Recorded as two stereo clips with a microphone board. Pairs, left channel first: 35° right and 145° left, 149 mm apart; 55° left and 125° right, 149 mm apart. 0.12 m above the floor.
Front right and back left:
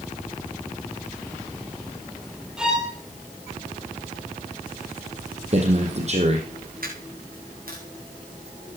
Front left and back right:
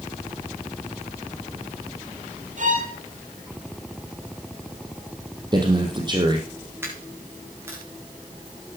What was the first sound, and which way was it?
A violin, 130° right.